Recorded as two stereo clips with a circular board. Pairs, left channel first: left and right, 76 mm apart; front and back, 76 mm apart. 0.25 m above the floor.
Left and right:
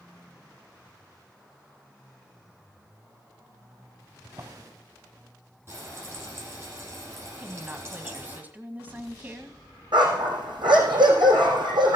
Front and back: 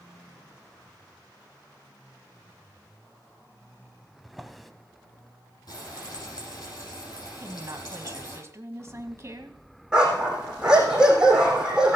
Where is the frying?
30° right, 6.5 m.